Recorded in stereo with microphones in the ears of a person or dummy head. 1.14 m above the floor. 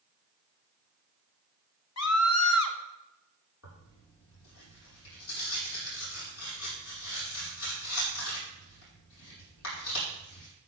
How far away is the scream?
About 1.5 m.